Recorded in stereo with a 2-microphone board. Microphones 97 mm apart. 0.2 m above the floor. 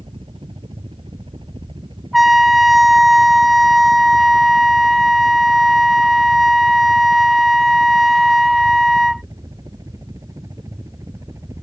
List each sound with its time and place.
0.0 s a helicopter: 60° right (ahead or behind); by 11.6 s 30° right (ahead or behind)
2.1 s a trumpet: centre (ahead or behind)